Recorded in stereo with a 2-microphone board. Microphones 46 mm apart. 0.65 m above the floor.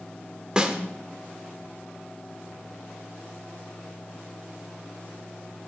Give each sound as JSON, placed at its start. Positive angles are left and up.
{"t": 0.6, "sound": "a snare drum", "side_deg": -20, "distance_m": 1.3}